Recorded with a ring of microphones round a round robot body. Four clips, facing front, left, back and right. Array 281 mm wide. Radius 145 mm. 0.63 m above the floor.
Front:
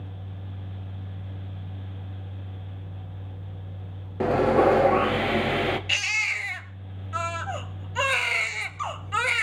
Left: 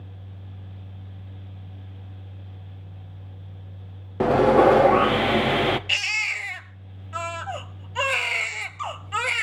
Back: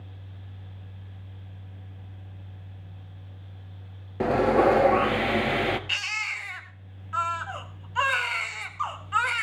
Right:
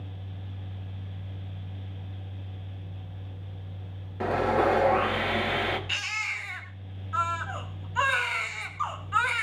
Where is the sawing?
90° left, 1.4 m.